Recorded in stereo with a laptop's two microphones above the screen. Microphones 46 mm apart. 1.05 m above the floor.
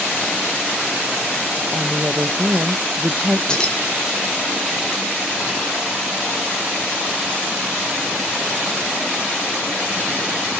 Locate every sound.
1.7 s a woman speaking: 45° right (ahead or behind), 0.7 m
3.5 s keys jangling: 20° left (ahead or behind), 2 m